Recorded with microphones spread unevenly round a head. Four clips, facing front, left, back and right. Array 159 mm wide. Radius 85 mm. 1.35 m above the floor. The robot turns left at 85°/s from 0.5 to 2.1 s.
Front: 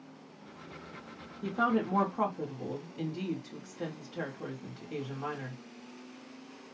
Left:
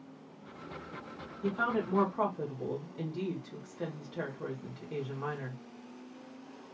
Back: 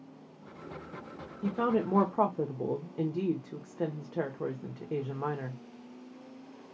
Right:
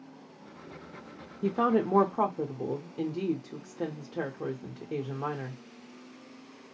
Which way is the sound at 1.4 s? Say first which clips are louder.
Right 6 dB, back 1 dB; 90° right.